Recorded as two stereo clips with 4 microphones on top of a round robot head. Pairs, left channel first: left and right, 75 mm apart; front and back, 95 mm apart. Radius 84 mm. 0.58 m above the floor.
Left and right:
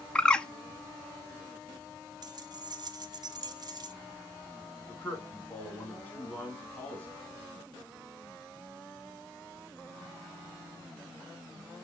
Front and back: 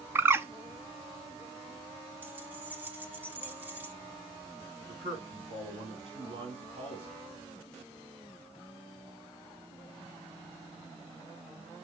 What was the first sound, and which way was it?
A bird, 155° left.